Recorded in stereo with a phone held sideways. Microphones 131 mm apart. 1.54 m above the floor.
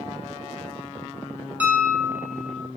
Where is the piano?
10° right (ahead or behind), 0.7 m.